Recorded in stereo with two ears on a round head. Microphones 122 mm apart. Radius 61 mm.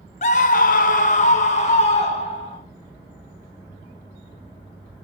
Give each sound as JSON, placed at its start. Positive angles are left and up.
{"t": 0.2, "sound": "a scream", "side_deg": 55, "distance_m": 0.8}